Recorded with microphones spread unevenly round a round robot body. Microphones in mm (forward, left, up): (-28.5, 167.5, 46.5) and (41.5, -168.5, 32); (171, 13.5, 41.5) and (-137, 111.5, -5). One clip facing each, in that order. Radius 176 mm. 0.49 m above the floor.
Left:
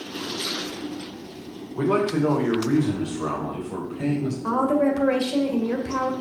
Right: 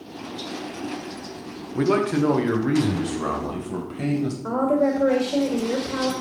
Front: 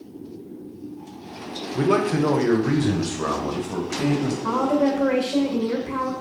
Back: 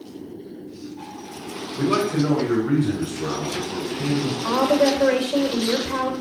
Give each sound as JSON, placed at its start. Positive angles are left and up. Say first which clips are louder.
{"t": 1.8, "sound": "a man speaking", "louder": "right 1 dB, front 1 dB", "azimuth_deg": -50, "distance_m": 1.6}
{"t": 4.4, "sound": "a woman speaking", "louder": "even, back 3 dB", "azimuth_deg": 175, "distance_m": 2.0}